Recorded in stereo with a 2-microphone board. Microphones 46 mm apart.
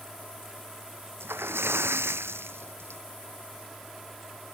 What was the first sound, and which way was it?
A splash, 60° right (ahead or behind).